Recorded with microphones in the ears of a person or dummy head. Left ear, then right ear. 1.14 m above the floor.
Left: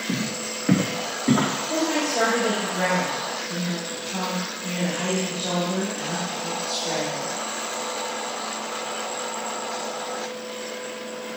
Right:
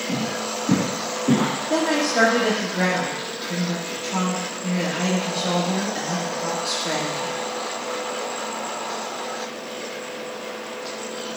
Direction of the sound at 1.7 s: 75° right (ahead or behind).